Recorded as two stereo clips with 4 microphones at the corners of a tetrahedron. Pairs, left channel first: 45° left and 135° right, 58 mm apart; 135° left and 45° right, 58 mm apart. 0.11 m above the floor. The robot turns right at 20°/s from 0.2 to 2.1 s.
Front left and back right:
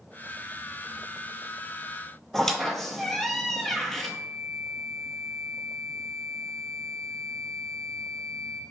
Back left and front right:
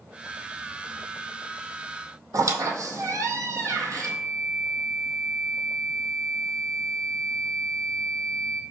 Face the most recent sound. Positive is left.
turn(degrees=-145)